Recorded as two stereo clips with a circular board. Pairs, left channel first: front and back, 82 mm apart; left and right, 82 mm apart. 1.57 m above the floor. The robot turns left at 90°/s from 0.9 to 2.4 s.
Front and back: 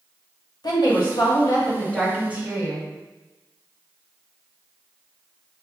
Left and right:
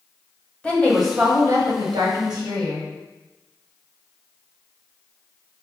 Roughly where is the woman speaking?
Ahead.